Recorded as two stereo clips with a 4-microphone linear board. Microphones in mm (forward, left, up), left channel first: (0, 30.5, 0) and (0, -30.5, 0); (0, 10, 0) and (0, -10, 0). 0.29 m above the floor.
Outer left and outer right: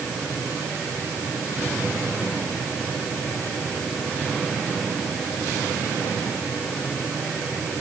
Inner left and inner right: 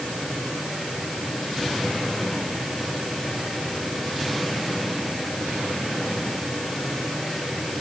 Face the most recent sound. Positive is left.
No sound to turn to.